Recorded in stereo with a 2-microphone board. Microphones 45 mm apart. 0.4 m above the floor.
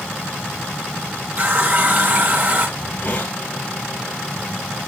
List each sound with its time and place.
1.4 s a running tap: 45° right (ahead or behind), 2.5 m
2.8 s a hiss: 25° left (ahead or behind), 2.0 m